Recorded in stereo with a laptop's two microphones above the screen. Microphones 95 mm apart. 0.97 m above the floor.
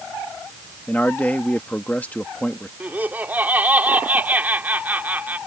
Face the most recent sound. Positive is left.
turn(degrees=-20)  # may be behind; listen again after turning